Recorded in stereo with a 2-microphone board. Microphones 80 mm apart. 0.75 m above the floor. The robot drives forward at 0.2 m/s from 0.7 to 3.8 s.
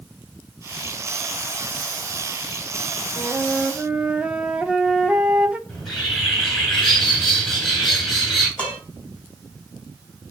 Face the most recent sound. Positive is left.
turn(degrees=15)  # may be behind; listen again after turning